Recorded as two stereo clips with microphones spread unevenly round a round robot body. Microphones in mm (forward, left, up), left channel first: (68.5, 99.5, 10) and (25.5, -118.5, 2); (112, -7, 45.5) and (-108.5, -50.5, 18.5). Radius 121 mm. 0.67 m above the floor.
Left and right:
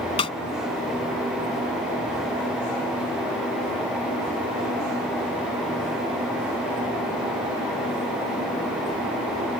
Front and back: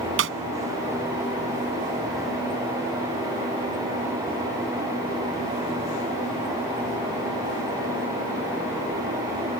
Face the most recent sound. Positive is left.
turn(degrees=150)